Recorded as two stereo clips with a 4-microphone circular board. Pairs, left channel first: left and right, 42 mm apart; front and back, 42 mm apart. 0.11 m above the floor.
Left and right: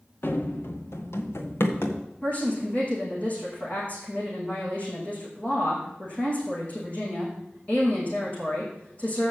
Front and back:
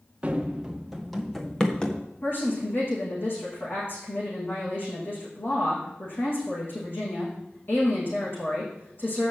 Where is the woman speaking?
35° left, 6 m.